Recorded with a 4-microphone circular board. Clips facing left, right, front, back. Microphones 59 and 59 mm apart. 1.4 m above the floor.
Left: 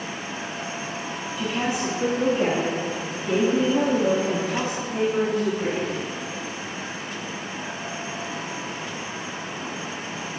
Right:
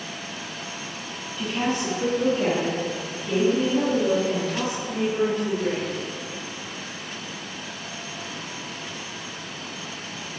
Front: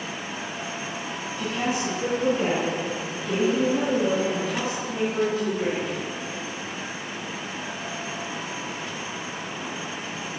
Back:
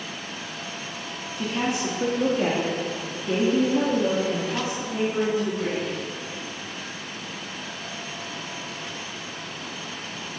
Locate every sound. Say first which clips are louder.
1.4 s a woman speaking: right 1 dB, back 1 dB; 175° left, 2.5 m; by 6.0 s 105° left, 3.5 m